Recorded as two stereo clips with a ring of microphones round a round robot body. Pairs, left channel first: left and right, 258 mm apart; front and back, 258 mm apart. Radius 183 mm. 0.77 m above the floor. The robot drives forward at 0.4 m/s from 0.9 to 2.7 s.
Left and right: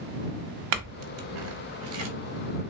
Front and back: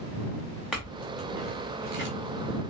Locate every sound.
0.7 s a clink: 90° right, 0.8 m; by 2.1 s 125° right, 0.9 m